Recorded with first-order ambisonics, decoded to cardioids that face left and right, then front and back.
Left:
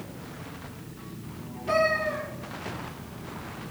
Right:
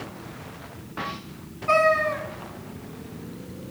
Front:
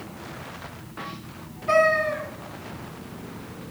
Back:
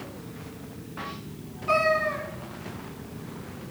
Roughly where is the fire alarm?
No fire alarm in this recording.